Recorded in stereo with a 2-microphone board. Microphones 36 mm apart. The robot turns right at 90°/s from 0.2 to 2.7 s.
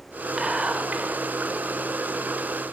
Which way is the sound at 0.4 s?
155° right.